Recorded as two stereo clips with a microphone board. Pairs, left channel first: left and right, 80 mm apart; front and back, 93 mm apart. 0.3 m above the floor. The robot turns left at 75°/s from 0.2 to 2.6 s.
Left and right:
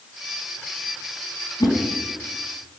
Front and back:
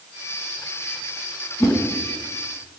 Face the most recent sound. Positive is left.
turn(degrees=-10)